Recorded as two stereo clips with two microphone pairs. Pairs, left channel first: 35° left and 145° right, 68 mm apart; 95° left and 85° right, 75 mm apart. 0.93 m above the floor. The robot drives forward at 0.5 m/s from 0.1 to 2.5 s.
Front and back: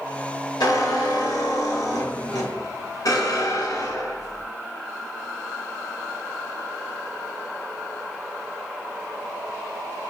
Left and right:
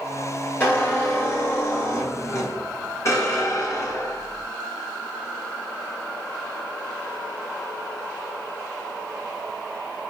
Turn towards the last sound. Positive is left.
turn(degrees=50)